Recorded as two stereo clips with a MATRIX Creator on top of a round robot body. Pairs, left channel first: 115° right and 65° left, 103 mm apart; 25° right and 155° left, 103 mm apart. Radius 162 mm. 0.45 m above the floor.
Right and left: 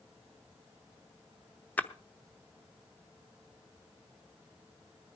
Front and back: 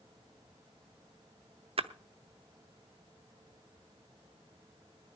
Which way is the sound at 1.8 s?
175° left.